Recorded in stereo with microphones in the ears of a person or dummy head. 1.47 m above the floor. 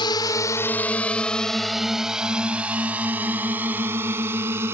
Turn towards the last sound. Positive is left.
turn(degrees=-15)  # may be behind; listen again after turning